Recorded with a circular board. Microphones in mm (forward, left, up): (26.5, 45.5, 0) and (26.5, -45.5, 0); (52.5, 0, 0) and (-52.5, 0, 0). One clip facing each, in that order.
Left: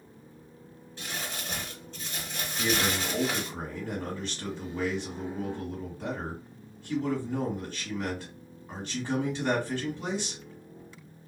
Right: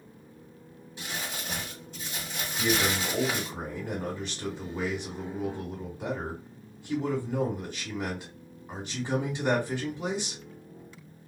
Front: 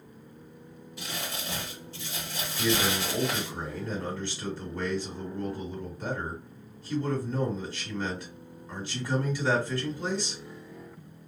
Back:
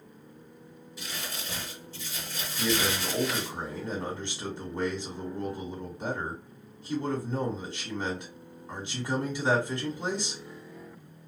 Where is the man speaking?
145° right, 1.3 m.